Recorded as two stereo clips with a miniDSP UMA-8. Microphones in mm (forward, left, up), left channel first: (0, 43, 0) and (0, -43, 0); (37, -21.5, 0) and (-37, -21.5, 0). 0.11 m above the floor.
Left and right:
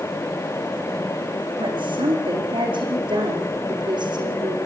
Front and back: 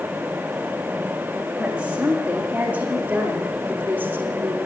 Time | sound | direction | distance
1.6 | a woman speaking | 100° right | 7 m